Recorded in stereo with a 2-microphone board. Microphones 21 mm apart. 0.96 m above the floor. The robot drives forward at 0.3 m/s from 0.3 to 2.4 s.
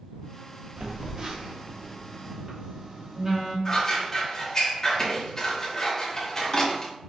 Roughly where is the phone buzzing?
Right.